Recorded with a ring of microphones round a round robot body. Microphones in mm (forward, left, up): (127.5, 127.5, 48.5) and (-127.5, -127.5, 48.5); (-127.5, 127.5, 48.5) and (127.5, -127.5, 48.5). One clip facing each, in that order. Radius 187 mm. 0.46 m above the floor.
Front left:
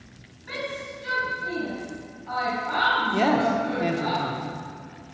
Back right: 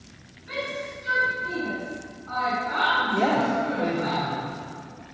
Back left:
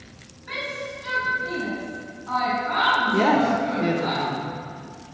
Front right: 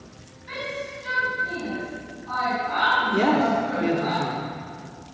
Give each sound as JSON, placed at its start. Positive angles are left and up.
{"t": 0.5, "sound": "a shout", "azimuth_deg": 50, "distance_m": 5.0}
{"t": 3.1, "sound": "a man speaking", "azimuth_deg": 45, "distance_m": 1.1}